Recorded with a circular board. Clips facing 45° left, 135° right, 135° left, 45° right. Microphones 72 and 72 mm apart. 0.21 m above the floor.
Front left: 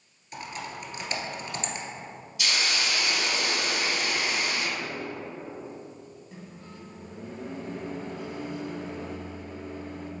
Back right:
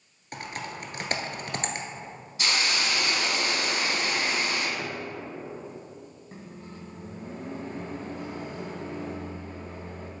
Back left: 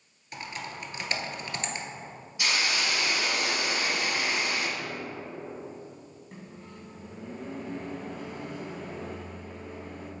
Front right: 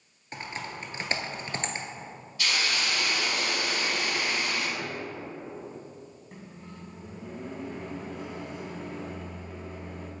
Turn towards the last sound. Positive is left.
turn(degrees=-130)